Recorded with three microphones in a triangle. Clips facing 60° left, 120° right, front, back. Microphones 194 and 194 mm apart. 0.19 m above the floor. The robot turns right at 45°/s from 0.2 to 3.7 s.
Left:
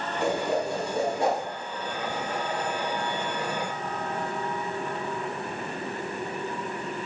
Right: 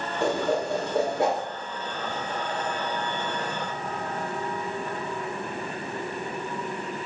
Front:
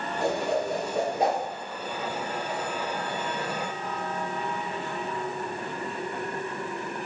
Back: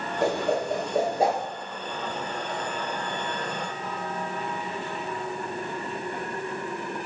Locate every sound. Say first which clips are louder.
0.2 s a whoosh: right 1 dB, back 2 dB; 170° right, 1.3 m; by 1.4 s 115° right, 1.3 m